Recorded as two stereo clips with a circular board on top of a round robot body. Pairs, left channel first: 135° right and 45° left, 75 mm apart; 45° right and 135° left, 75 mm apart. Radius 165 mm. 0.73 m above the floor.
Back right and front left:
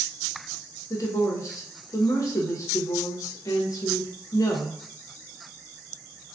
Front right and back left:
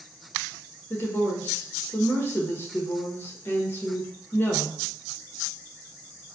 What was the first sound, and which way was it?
A woman speaking, 100° right.